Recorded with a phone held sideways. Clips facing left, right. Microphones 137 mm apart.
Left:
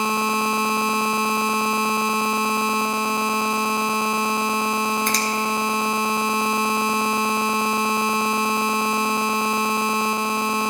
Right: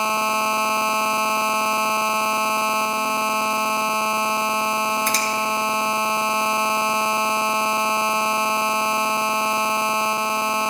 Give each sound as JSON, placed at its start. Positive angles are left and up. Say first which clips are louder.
{"t": 5.1, "sound": "a finger snap", "louder": "even", "side_deg": 0, "distance_m": 1.2}